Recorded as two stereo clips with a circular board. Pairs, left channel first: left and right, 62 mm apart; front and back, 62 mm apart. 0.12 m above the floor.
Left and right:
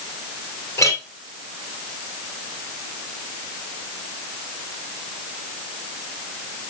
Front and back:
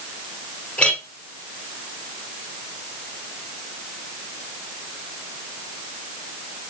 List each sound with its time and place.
0.8 s a clink: 70° left, 1.6 m